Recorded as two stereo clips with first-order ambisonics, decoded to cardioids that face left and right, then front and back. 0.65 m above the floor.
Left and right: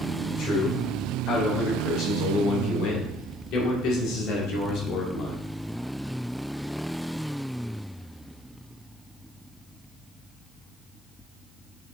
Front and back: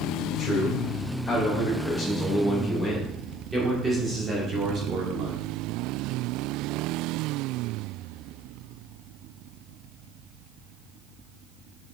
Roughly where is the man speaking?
Ahead left.